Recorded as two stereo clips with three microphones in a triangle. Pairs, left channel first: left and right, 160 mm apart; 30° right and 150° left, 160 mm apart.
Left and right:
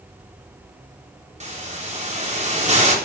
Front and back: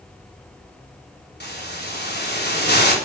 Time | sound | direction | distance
1.4 | a hiss | 45° right | 3.5 m